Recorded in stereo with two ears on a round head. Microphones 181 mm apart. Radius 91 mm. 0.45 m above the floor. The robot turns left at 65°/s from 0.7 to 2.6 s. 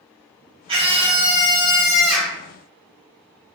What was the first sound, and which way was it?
A scream, 25° right (ahead or behind).